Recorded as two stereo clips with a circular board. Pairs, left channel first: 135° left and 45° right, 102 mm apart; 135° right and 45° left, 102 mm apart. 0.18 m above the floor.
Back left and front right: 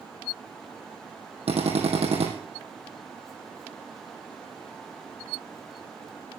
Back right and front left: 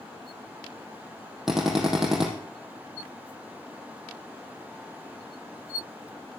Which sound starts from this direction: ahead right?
A drill, at 1.5 s.